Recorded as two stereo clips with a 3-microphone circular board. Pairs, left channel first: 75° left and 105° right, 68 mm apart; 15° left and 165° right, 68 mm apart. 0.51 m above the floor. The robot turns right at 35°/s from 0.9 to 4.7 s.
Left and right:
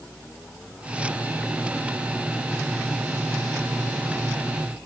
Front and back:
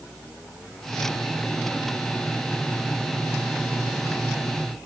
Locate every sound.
Only background noise.